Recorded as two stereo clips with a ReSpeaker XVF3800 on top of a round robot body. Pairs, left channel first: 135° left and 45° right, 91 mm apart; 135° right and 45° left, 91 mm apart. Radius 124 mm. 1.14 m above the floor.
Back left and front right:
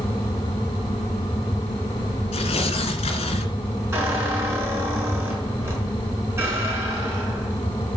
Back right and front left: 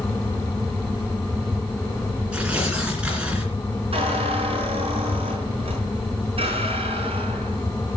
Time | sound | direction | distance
2.3 | tearing paper | 125° left | 3 m
3.9 | a squeak | 20° left | 5 m